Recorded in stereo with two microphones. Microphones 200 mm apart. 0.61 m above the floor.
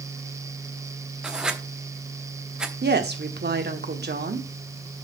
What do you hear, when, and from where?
1.2 s writing: 5° right (ahead or behind), 0.9 m
2.8 s a woman speaking: 55° right (ahead or behind), 1.2 m